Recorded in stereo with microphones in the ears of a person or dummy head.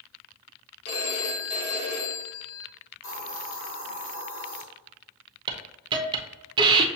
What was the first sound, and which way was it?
A phone ringing, 55° left (ahead or behind).